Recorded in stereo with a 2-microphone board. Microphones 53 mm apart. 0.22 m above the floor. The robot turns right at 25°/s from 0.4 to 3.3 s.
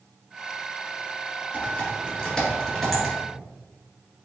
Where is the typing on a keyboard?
30° left (ahead or behind), 1.5 m; by 3.1 s 5° right (ahead or behind), 1.5 m.